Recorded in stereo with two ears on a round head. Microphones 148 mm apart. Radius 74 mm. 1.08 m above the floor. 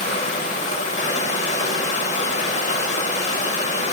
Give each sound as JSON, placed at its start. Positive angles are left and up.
{"t": 0.0, "sound": "running water", "side_deg": 45, "distance_m": 1.3}